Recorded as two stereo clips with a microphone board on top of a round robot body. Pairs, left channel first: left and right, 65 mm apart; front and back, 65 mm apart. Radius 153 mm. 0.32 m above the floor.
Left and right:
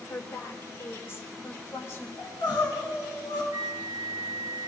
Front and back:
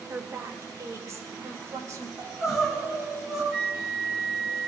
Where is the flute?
105° right, 0.8 m.